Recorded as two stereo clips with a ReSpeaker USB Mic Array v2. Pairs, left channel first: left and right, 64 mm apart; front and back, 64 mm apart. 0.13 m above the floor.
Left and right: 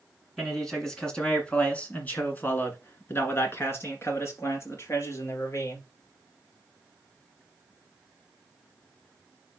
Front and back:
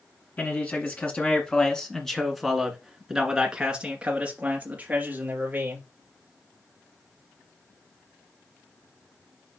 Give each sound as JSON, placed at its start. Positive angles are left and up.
{"t": 0.4, "sound": "a man speaking", "azimuth_deg": 5, "distance_m": 1.8}